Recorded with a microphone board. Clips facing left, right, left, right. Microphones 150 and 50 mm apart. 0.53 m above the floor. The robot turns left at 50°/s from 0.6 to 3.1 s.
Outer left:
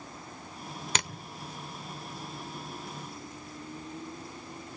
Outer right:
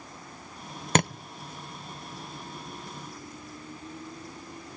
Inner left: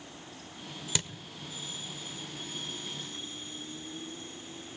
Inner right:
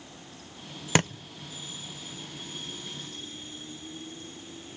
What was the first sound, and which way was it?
A thud, 50° right (ahead or behind).